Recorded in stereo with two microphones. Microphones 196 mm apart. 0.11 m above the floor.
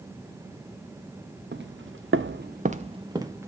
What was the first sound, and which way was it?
Footsteps, 60° right (ahead or behind).